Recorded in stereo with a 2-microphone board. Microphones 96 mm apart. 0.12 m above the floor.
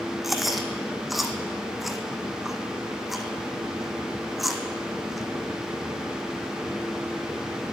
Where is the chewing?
Centre (ahead or behind), 1.2 m.